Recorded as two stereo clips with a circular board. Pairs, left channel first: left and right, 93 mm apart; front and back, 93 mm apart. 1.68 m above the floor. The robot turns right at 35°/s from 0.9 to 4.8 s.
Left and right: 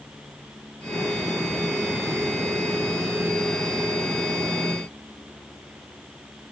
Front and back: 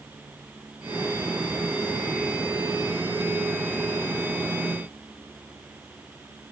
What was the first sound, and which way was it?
Only background noise.